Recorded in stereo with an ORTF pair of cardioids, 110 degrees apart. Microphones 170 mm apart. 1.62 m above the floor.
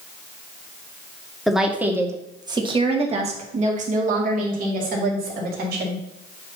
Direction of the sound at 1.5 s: Straight ahead.